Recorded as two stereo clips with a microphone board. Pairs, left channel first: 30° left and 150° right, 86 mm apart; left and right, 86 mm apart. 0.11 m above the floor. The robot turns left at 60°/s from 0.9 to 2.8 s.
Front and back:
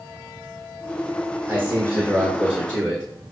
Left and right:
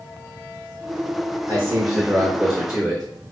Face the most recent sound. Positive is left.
turn(degrees=180)